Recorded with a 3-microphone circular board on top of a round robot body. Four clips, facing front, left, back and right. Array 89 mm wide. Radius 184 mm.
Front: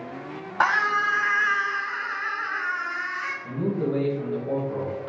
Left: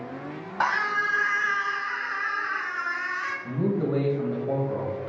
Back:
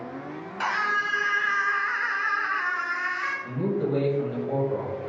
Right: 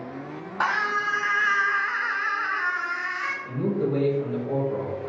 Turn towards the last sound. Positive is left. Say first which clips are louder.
# even, front 1 dB
turn(degrees=95)